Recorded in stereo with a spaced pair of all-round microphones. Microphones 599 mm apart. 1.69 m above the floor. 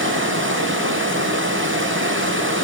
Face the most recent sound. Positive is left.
turn(degrees=-20)  # may be behind; listen again after turning